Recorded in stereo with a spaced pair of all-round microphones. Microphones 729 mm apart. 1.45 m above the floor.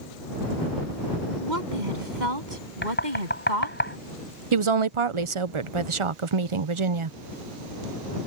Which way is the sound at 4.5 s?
45° right (ahead or behind).